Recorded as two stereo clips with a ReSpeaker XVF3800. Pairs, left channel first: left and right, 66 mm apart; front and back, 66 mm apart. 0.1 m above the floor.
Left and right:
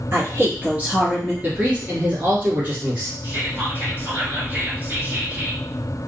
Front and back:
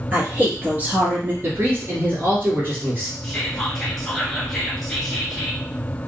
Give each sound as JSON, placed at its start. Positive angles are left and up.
{"t": 0.1, "sound": "a woman speaking", "azimuth_deg": -125, "distance_m": 1.6}
{"t": 1.4, "sound": "a man speaking", "azimuth_deg": -145, "distance_m": 1.5}
{"t": 3.2, "sound": "whispering", "azimuth_deg": -80, "distance_m": 1.2}